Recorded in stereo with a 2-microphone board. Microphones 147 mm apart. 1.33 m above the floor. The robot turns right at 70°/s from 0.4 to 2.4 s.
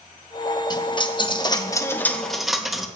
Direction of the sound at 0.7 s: 60° left.